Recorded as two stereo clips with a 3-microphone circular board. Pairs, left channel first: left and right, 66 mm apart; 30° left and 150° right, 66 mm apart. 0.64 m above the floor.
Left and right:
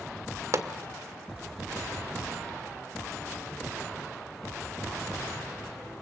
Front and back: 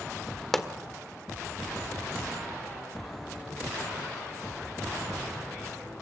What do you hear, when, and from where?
0.5 s a pop: 55° right, 1.6 m